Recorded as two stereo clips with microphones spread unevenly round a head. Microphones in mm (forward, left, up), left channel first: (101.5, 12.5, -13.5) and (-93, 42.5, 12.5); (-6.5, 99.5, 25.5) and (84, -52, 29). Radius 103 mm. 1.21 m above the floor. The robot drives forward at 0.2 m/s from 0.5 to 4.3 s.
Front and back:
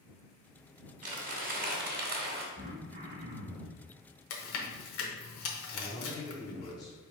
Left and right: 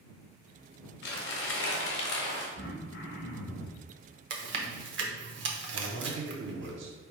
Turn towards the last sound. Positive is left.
turn(degrees=-80)